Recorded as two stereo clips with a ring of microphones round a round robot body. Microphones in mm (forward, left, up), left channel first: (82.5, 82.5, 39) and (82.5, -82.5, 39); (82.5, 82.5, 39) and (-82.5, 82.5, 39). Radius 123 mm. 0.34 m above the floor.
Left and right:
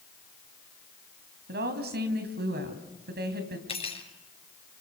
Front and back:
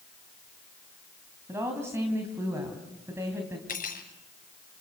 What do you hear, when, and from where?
1.5 s a woman speaking: 105° right, 3.5 m
3.7 s cutlery clinking: 35° left, 4 m